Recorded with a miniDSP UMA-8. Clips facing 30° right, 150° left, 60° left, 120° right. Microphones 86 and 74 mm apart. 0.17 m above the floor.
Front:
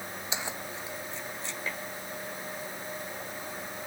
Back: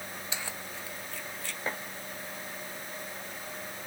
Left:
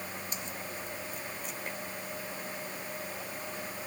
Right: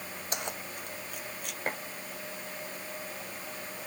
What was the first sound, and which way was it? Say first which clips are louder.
Keys jangling: front 5 dB, right 2 dB; 100° right.